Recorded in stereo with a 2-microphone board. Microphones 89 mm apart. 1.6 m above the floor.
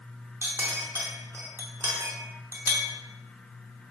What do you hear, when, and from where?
0.4 s a clink: 30° right (ahead or behind), 0.7 m